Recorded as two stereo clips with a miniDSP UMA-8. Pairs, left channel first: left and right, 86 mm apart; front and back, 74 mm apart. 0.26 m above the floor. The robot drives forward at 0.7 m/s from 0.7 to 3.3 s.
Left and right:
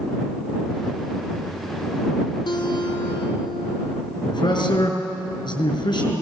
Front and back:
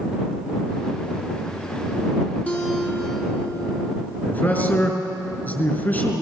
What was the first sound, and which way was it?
A guitar, 65° left.